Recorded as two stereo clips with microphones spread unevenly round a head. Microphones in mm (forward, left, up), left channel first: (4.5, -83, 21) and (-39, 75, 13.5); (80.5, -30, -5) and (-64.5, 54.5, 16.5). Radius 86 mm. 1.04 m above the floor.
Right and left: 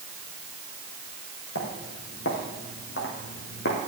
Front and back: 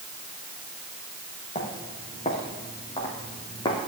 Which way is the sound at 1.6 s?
95° right.